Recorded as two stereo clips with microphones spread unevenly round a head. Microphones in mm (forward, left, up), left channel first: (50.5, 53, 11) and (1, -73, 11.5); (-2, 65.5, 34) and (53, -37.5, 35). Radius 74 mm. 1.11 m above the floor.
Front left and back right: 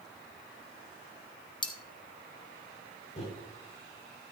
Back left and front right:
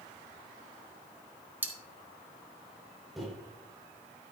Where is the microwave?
30° left, 5 m.